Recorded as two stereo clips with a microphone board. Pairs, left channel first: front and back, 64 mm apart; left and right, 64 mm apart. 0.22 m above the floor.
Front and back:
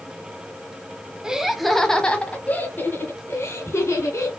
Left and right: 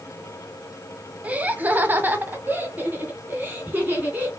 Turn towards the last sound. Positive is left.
turn(degrees=-30)